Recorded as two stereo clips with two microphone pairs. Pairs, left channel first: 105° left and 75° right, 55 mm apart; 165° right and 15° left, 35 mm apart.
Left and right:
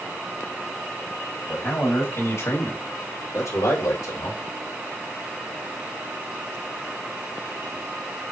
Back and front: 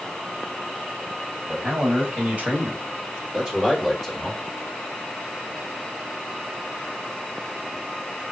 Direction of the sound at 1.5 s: 55° left.